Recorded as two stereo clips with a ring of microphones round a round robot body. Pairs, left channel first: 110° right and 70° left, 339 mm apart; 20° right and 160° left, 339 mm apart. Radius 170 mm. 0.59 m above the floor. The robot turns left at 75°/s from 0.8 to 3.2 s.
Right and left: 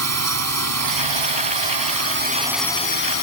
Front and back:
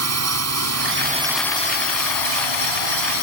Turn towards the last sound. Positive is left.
turn(degrees=-70)